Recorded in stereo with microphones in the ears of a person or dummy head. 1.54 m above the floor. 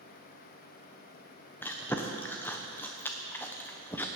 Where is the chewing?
20° left (ahead or behind), 0.9 m.